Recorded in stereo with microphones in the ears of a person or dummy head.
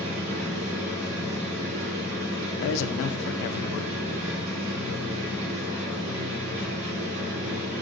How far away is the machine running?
About 3 m.